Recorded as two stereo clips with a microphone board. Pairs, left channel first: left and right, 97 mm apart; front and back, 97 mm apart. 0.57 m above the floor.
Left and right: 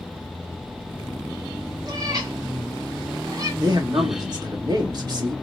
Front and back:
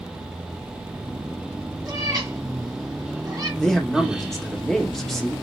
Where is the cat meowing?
135° right, 2 m.